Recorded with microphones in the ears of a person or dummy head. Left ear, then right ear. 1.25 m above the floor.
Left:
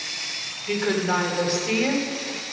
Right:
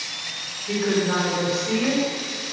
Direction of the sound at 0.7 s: 45° left (ahead or behind).